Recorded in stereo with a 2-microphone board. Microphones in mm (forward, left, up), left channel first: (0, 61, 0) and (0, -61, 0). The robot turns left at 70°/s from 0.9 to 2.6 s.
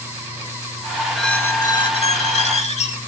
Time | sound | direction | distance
1.1 | a squeak | straight behind | 1.1 m